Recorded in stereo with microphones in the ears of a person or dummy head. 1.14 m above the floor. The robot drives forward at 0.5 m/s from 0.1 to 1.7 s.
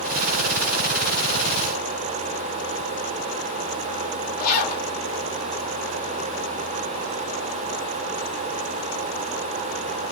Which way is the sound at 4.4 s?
50° left (ahead or behind).